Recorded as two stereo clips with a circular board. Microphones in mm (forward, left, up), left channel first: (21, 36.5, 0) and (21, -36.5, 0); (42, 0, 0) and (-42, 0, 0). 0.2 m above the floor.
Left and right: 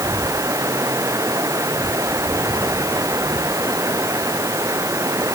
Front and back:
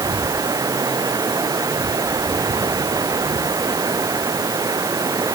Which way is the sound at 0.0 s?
135° right.